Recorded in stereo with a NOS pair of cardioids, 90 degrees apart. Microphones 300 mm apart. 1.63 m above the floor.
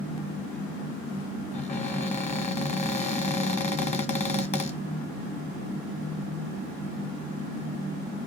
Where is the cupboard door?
20° left, 1.0 m.